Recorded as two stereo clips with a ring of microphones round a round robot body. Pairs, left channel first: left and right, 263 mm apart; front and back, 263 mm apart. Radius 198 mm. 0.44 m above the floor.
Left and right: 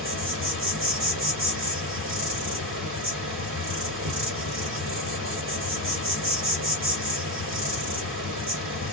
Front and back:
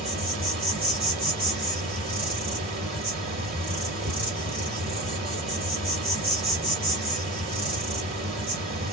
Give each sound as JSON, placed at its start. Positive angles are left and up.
{"t": 0.0, "sound": "an insect", "azimuth_deg": -110, "distance_m": 1.8}